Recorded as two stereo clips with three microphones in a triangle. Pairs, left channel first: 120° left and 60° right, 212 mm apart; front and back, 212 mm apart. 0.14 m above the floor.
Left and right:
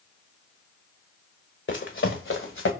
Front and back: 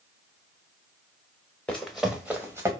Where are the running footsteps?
85° left, 0.9 m; by 2.7 s 105° left, 1.3 m.